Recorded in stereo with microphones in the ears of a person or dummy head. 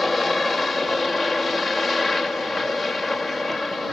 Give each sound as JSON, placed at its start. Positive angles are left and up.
{"t": 0.0, "sound": "a helicopter", "side_deg": 5}